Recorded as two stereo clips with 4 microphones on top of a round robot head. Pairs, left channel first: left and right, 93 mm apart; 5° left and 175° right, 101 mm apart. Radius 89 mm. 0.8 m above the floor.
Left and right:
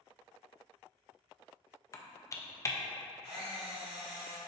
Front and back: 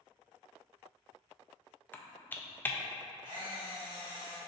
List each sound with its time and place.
1.9 s typing on a keyboard: 65° left, 0.6 m
3.2 s a camera shutter: 120° right, 1.6 m